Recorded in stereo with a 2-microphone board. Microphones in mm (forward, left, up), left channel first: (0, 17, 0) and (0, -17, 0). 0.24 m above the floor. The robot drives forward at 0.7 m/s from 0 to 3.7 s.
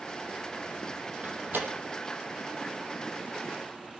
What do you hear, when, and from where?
1.2 s a door slam: 70° right (ahead or behind), 5 m